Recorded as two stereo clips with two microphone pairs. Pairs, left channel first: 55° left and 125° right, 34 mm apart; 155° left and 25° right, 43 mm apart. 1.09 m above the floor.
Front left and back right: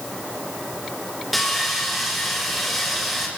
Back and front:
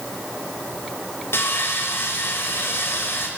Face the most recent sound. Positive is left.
turn(degrees=145)